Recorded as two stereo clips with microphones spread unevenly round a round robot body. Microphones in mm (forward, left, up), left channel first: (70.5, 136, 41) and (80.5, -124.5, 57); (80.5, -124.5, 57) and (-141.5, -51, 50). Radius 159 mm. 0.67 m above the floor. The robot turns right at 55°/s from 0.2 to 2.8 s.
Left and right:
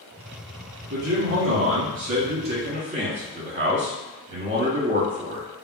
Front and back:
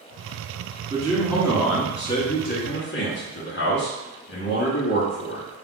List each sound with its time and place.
0.9 s a man speaking: 135° right, 1.1 m; by 5.5 s 30° right, 1.1 m